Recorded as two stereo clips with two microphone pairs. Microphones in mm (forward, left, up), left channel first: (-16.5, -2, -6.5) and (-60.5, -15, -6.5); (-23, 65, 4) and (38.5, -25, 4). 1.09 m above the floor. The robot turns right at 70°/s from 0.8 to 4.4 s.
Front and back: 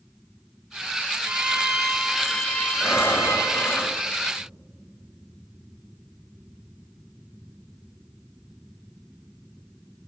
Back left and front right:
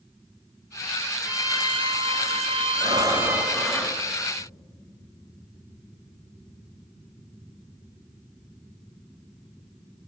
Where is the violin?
125° right, 0.8 m; by 3.8 s 50° left, 0.8 m.